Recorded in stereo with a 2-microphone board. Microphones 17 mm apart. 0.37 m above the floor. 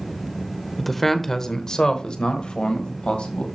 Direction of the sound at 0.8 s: 5° left (ahead or behind).